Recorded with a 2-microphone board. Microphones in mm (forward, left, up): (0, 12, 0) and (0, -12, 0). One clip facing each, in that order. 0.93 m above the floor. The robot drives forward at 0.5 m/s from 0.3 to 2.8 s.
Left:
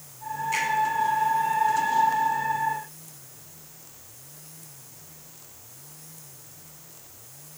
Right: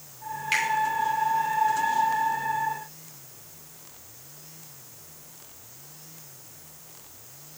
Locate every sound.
0.5 s a finger snap: 75° right (ahead or behind), 3 m